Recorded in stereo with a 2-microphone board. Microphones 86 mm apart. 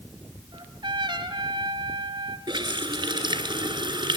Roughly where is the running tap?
Right.